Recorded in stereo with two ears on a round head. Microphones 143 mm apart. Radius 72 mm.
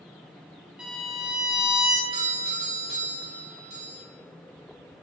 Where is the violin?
5° right (ahead or behind), 0.7 m.